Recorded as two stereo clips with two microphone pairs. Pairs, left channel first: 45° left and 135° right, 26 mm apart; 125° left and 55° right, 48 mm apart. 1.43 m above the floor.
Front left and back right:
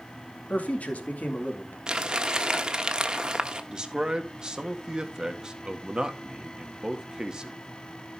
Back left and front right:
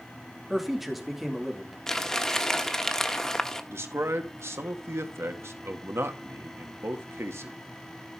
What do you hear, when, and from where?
0.5 s a man speaking: 30° left, 2.5 m
1.9 s crumpling: 170° right, 1.1 m
3.7 s a man speaking: 75° right, 1.6 m